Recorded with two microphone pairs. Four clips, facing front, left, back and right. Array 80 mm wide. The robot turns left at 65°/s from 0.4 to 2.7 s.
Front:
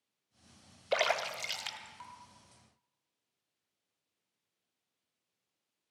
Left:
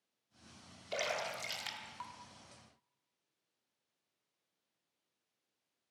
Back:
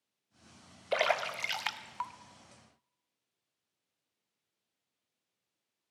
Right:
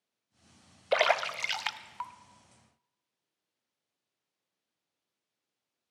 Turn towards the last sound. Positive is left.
turn(degrees=165)